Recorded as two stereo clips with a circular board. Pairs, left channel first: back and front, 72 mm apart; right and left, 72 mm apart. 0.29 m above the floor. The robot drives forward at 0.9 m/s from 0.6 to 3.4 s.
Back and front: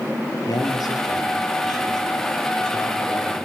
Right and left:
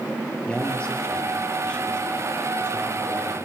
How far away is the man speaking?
About 6.5 m.